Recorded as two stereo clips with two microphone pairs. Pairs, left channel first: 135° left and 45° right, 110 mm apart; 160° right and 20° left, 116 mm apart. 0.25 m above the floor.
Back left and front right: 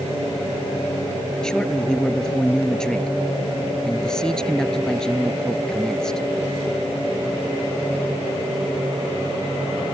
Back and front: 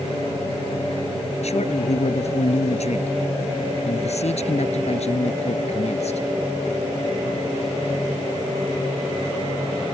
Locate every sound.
1.4 s a man speaking: 140° right